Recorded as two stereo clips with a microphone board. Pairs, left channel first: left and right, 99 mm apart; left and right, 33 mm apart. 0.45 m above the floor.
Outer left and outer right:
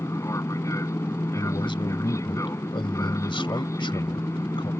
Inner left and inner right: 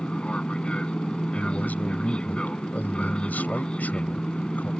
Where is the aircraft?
30° left (ahead or behind).